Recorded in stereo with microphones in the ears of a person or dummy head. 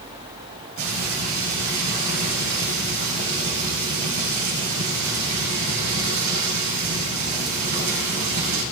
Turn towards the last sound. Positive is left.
turn(degrees=-70)  # may be behind; listen again after turning